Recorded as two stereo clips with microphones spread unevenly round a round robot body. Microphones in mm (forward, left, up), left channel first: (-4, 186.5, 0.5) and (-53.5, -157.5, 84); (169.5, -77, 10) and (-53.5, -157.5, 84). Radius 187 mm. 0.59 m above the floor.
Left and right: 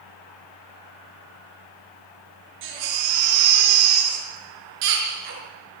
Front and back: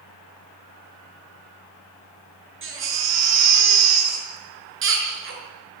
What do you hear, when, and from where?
2.6 s a baby crying: 125° right, 6.5 m